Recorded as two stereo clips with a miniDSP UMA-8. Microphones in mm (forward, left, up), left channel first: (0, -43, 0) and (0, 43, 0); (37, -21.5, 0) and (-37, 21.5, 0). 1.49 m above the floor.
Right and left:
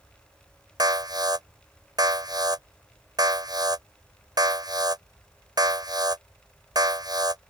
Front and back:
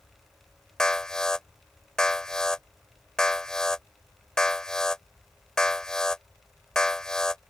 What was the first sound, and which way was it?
An alarm, 55° left.